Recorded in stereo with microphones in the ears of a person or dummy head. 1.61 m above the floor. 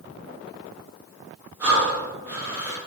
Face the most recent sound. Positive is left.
turn(degrees=-15)  # may be behind; listen again after turning